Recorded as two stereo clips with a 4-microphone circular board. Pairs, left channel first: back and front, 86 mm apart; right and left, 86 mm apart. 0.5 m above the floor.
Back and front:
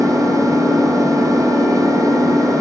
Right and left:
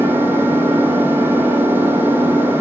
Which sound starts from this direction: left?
An engine running, at 0.0 s.